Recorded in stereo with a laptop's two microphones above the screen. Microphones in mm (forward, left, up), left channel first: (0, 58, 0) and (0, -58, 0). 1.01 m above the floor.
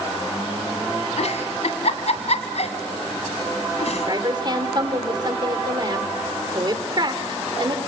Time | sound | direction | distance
1.2 | a giggle | 70° left (ahead or behind) | 2 m
4.0 | a woman speaking | 40° right (ahead or behind) | 3 m